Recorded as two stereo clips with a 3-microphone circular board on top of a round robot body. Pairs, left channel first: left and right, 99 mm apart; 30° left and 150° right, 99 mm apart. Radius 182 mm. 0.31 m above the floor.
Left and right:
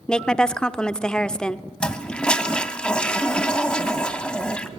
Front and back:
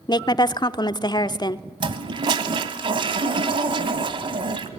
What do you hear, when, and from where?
0.1 s a woman speaking: 10° left, 1.1 m
1.8 s a toilet flushing: 170° left, 1.1 m